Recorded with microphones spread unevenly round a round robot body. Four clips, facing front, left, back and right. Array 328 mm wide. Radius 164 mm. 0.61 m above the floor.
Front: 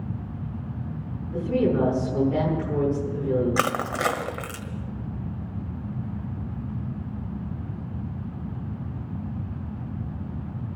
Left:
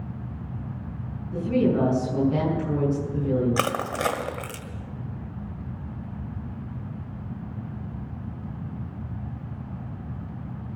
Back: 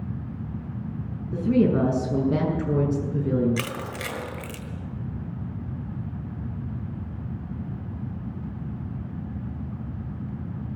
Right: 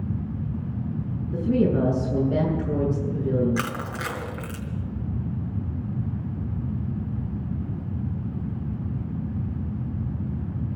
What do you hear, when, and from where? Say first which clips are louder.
1.3 s a woman speaking: even, back 2 dB; 165° right, 7 m
3.6 s crushing: left 4 dB, front 7 dB; 50° left, 1.7 m